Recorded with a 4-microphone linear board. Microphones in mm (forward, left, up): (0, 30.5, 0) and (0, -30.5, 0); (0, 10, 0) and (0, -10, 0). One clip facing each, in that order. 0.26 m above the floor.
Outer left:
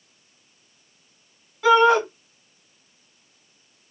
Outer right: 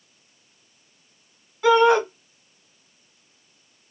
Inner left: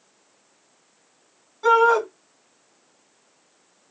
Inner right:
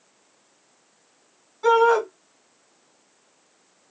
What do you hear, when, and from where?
1.6 s a shout: 5° left (ahead or behind), 1.9 m